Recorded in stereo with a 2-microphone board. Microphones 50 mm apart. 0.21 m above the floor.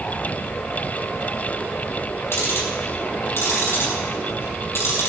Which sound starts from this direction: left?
Ticking, at 2.3 s.